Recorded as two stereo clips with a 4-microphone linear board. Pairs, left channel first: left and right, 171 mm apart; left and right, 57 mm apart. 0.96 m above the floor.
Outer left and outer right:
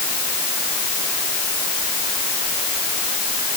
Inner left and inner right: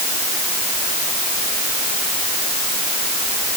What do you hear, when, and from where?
Only background noise.